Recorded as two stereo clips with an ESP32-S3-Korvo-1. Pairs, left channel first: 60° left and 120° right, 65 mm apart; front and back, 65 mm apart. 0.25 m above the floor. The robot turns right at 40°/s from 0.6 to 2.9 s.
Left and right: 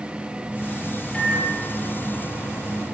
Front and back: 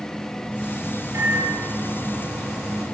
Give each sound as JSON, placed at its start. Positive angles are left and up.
{"t": 1.1, "sound": "a microwave", "azimuth_deg": 135, "distance_m": 4.5}